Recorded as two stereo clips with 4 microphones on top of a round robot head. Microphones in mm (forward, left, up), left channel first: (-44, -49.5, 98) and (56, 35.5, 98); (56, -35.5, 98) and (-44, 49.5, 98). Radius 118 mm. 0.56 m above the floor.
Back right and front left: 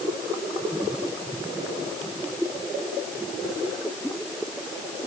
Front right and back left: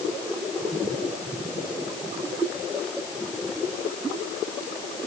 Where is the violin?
I don't hear a violin.